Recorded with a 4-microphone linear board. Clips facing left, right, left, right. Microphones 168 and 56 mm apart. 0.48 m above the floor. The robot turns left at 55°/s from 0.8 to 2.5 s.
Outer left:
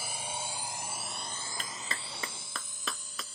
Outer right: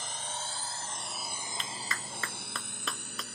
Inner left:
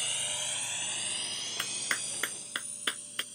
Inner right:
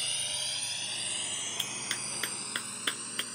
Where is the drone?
10° left (ahead or behind); by 3.4 s 65° right (ahead or behind).